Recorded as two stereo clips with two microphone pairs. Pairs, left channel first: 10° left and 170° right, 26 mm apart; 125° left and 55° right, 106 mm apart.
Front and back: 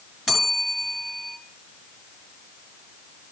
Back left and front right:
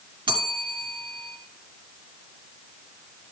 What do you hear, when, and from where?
0.3 s a bell: 95° right, 1.8 m